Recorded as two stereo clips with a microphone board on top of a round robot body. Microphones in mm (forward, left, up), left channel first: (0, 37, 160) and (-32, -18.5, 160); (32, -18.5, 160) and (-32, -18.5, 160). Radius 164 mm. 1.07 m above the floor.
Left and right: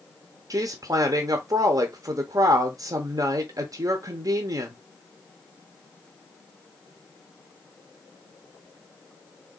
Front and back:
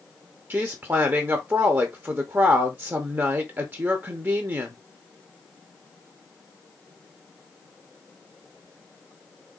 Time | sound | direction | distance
0.5 | a woman speaking | 130° right | 0.7 m